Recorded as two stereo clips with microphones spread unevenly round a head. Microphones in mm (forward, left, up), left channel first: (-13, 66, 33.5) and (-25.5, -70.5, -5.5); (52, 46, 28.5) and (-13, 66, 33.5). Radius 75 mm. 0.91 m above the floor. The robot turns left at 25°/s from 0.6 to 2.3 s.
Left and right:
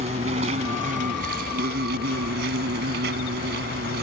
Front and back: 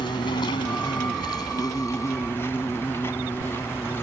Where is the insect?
45° right; by 4.0 s 90° right.